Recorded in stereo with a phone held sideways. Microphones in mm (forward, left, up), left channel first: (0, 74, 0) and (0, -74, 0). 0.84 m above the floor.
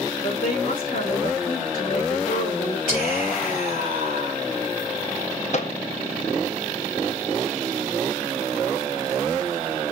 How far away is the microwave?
About 0.8 m.